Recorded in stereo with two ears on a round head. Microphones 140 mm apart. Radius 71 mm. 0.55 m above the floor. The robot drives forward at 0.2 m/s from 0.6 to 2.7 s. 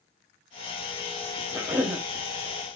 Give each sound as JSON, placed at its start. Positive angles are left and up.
{"t": 1.5, "sound": "a cough", "side_deg": -10, "distance_m": 0.9}